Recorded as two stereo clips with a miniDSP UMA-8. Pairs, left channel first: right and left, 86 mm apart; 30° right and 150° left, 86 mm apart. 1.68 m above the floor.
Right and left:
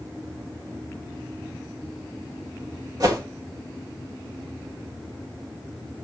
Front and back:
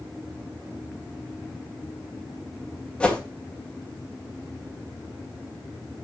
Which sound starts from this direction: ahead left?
A whoosh, at 3.0 s.